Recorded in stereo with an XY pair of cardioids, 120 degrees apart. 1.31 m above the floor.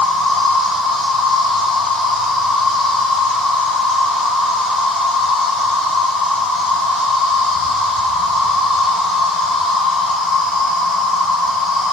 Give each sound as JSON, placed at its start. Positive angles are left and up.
{"t": 0.0, "sound": "an insect", "azimuth_deg": 70, "distance_m": 4.5}